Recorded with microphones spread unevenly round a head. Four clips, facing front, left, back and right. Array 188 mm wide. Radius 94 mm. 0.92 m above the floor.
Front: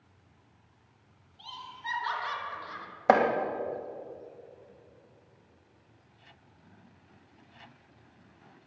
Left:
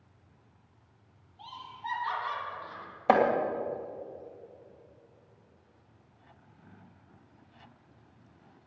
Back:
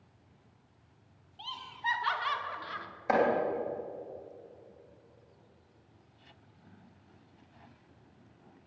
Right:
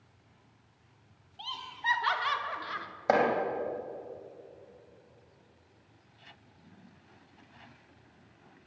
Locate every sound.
1.4 s laughter: 115° right, 2.5 m; by 2.9 s 105° right, 1.9 m
3.1 s chopping: 15° left, 2.5 m